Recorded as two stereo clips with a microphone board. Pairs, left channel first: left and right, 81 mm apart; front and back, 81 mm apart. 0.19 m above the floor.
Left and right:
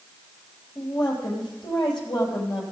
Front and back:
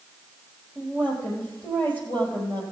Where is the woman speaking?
65° left, 5 m.